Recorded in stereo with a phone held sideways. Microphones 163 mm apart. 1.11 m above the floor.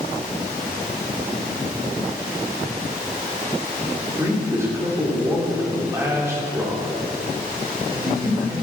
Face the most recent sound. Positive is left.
turn(degrees=-15)  # may be behind; listen again after turning